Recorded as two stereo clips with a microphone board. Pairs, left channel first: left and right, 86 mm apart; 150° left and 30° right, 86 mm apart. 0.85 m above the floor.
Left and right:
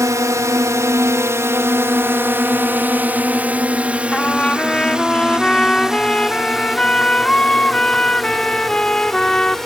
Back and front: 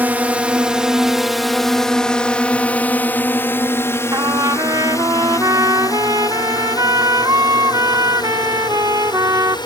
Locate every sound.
0.0 s a drone: 90° right; by 9.7 s 175° left
4.1 s a trumpet: 10° left